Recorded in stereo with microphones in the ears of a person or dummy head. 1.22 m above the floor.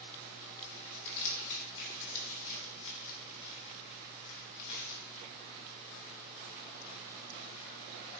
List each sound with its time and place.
0.6 s crumpling: 70° left (ahead or behind), 3.5 m